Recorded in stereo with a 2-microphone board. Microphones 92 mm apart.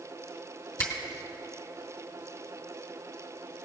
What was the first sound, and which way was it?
A finger snap, 40° left (ahead or behind).